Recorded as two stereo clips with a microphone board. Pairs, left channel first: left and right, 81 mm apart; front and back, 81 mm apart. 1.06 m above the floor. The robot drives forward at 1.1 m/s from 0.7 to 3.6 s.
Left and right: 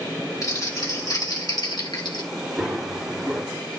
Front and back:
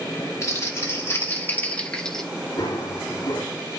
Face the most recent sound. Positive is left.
turn(degrees=-10)